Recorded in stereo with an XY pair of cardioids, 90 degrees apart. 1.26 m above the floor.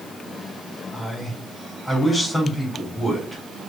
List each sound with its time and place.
0.9 s a man speaking: 15° left, 4.5 m